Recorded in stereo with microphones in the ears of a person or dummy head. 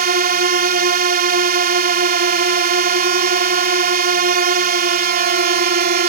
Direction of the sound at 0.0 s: 55° right (ahead or behind).